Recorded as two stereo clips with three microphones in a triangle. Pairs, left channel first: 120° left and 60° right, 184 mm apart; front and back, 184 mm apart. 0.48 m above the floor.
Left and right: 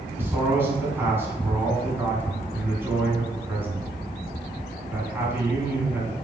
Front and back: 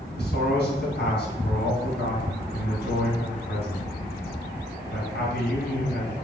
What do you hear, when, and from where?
0.2 s a man speaking: 20° left, 3.5 m